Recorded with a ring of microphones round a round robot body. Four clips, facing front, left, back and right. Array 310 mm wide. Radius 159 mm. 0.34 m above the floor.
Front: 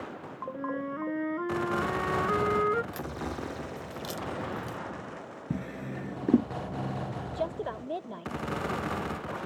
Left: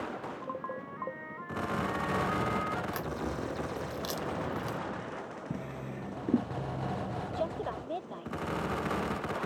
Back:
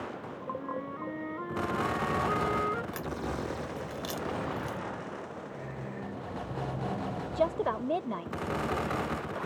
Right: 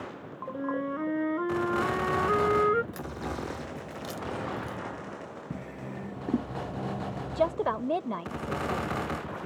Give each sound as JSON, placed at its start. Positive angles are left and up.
{"t": 0.5, "sound": "a flute", "azimuth_deg": -65}
{"t": 2.9, "sound": "a crack", "azimuth_deg": 110}
{"t": 5.5, "sound": "a drawer", "azimuth_deg": 5}
{"t": 7.3, "sound": "a woman speaking", "azimuth_deg": -115}